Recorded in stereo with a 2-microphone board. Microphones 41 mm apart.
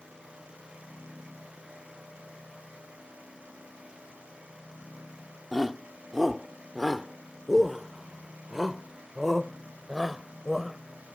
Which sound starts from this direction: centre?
A shout, at 5.5 s.